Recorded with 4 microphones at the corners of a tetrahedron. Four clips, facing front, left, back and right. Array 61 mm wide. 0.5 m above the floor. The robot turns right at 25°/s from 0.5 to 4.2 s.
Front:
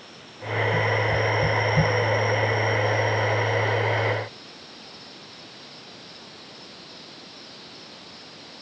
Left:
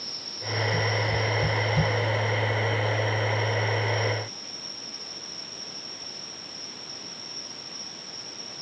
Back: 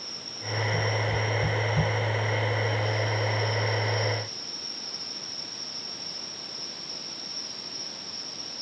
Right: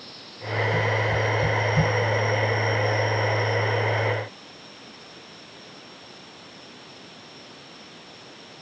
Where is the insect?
90° left; by 8.6 s straight behind.